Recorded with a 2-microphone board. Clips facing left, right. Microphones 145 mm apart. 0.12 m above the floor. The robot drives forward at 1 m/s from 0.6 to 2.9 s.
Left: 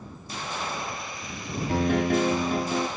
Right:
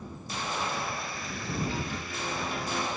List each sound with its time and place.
1.7 s a piano: 50° left (ahead or behind), 0.6 m; by 2.9 s 30° left (ahead or behind), 1.0 m